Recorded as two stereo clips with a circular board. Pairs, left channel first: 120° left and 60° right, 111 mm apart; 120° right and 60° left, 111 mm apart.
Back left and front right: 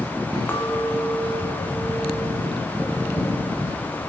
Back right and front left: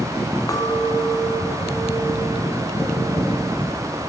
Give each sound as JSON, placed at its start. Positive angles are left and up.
{"t": 0.5, "sound": "a clink", "azimuth_deg": -175, "distance_m": 1.4}